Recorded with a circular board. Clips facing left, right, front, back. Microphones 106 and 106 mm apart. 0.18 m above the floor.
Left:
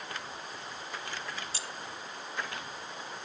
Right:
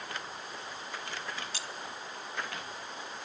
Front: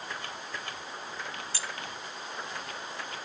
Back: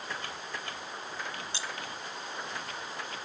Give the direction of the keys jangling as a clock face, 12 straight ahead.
8 o'clock.